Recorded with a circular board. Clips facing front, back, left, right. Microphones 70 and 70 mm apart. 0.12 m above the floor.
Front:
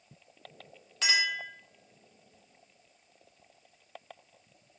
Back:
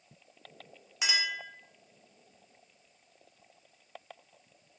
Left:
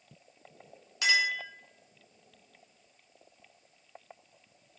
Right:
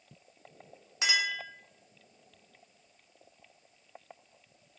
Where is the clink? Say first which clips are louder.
Front 3 dB, left 3 dB; 115° right, 0.8 m.